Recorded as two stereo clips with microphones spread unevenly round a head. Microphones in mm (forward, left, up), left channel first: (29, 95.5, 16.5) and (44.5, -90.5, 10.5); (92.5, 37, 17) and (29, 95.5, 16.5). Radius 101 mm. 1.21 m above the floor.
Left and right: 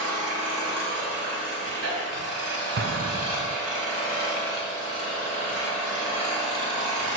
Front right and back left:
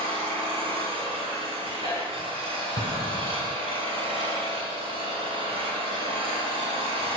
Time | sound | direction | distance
0.0 | an engine running | 100° right | 3.5 m
2.8 | an explosion | 80° right | 0.7 m